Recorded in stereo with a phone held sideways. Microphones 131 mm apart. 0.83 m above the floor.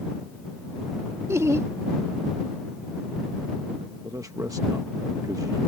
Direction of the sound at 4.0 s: 25° right (ahead or behind).